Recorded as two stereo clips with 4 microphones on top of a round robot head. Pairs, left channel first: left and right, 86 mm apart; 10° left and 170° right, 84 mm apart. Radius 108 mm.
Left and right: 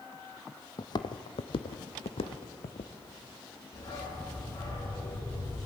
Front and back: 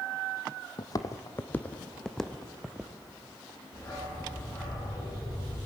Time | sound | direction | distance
0.8 | footsteps | 50° left | 1.0 m
3.7 | a dog barking | 55° left | 10 m